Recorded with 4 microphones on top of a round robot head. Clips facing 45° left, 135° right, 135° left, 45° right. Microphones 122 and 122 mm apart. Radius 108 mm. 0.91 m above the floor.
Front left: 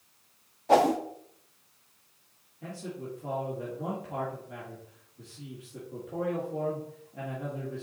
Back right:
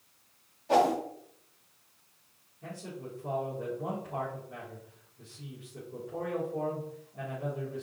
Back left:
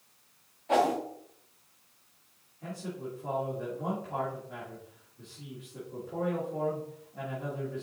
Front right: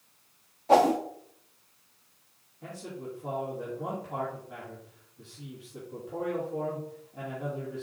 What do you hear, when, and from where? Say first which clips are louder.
0.7 s a whoosh: front left 3 dB, front right 5 dB; 5° left, 0.5 m
2.6 s a man speaking: front left 3 dB, back left 1 dB; 40° left, 2.5 m